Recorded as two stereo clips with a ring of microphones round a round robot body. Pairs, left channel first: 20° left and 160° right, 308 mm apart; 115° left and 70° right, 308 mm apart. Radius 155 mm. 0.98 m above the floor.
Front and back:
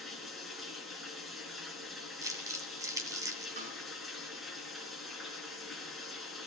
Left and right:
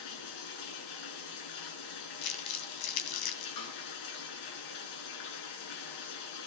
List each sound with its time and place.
0.0 s running water: 115° left, 3.5 m
2.2 s crumpling: 125° left, 2.0 m
3.6 s a snare drum: 135° left, 5.5 m